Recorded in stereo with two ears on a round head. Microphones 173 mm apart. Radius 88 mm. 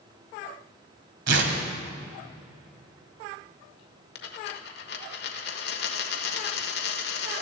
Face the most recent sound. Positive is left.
turn(degrees=65)  # may be behind; listen again after turning